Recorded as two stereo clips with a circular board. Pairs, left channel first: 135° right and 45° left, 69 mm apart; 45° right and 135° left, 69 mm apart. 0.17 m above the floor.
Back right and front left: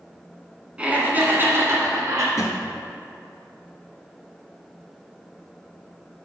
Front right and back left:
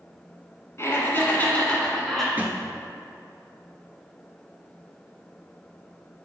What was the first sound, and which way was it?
Laughter, 20° right.